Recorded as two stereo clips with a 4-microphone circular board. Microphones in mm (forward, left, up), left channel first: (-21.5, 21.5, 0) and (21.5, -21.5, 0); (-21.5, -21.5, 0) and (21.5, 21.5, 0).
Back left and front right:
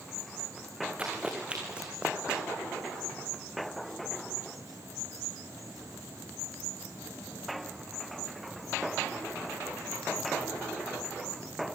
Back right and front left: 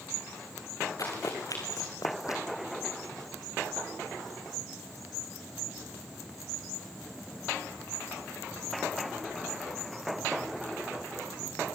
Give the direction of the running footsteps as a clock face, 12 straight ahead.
4 o'clock.